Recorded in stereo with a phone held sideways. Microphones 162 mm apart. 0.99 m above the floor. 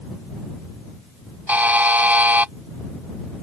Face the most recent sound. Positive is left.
turn(degrees=-10)  # may be behind; listen again after turning